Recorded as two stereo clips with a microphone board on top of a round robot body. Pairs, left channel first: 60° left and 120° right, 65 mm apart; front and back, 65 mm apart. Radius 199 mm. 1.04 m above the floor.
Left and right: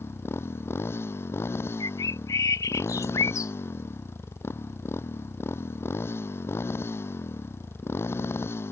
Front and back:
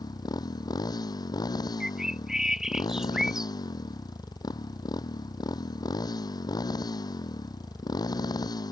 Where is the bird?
95° left.